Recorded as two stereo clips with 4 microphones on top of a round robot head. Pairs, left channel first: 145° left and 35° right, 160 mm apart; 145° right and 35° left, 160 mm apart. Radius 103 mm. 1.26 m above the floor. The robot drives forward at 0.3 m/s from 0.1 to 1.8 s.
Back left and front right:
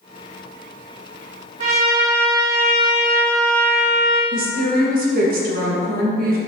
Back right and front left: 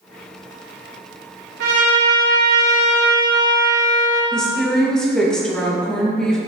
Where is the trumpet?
10° left, 1.8 m.